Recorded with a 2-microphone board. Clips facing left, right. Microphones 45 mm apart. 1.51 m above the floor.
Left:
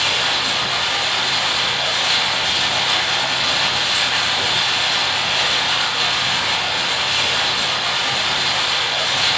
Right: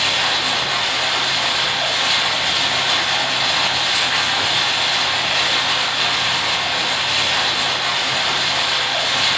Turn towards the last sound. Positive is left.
turn(degrees=-25)  # may be behind; listen again after turning